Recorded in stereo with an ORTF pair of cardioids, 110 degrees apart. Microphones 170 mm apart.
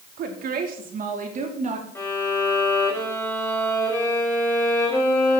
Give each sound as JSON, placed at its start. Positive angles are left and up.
{"t": 0.2, "sound": "a woman speaking", "azimuth_deg": -60, "distance_m": 3.5}
{"t": 1.9, "sound": "a violin", "azimuth_deg": 15, "distance_m": 5.0}